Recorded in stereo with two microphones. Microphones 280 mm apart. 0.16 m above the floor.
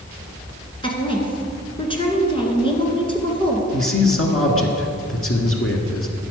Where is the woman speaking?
20° left (ahead or behind), 2.0 m.